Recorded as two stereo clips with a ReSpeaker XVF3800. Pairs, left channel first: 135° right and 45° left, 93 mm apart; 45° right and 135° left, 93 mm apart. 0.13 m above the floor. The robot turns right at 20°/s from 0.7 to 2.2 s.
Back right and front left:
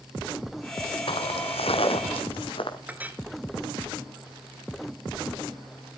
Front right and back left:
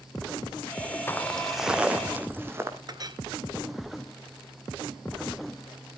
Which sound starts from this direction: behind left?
A clink, at 2.9 s.